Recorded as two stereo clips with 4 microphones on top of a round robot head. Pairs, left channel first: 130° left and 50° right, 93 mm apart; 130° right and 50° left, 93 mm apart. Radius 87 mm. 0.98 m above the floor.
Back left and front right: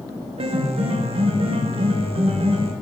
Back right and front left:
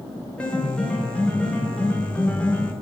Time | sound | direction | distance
0.4 | a piano | 55° right | 0.5 m